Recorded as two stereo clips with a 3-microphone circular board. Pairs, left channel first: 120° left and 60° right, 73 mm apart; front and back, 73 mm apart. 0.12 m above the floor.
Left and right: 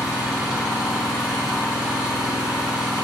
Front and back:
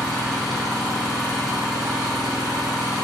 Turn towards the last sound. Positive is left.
turn(degrees=-95)